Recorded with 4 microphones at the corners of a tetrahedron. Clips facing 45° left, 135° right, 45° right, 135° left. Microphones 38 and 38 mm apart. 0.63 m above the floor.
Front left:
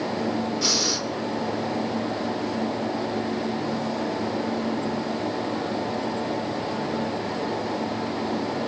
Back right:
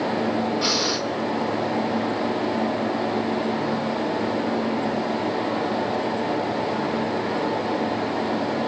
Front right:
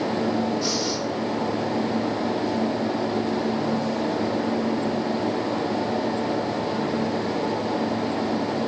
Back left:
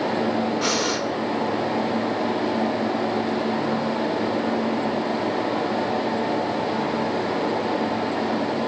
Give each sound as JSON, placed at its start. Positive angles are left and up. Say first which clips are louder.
{"t": 0.6, "sound": "breathing", "louder": "back right 3 dB, back left 3 dB", "azimuth_deg": 160, "distance_m": 2.5}